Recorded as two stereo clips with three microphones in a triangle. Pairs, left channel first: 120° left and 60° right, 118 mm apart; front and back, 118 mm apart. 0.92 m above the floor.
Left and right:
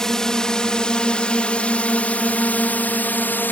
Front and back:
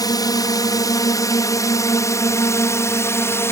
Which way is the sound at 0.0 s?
35° left.